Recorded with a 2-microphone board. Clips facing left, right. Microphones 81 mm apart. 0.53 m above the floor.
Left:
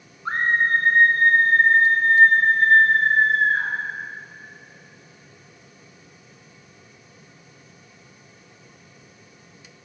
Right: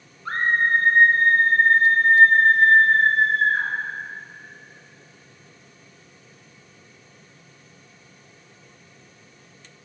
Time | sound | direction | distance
0.2 | a scream | 25° left (ahead or behind) | 0.9 m